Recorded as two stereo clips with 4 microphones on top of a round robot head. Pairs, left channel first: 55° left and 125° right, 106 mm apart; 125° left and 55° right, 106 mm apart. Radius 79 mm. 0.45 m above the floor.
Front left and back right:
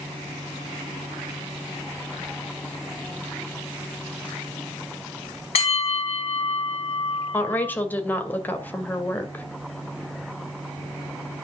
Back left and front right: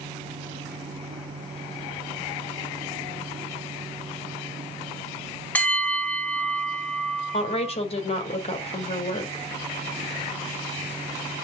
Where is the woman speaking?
125° left, 2.5 m.